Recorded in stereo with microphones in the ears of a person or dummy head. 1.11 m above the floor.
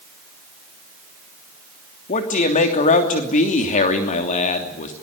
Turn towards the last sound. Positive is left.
turn(degrees=40)  # may be behind; listen again after turning